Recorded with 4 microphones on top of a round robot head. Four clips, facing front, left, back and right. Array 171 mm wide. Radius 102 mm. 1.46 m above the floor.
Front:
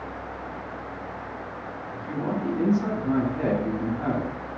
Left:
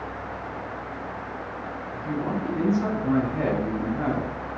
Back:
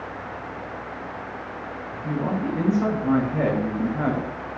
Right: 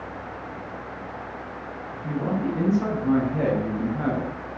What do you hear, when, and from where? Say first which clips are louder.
1.9 s a man speaking: right 1 dB, back 2 dB; 155° right, 8 m